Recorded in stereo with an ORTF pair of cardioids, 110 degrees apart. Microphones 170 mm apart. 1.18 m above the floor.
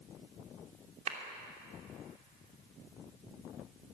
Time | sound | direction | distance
1.1 | a clap | 45° right | 3 m